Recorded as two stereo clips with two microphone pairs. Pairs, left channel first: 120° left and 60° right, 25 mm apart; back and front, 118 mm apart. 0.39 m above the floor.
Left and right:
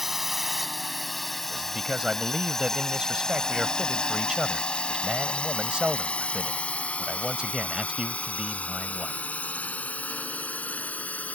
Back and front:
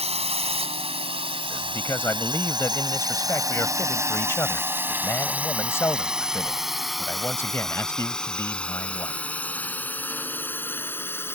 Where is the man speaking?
115° right.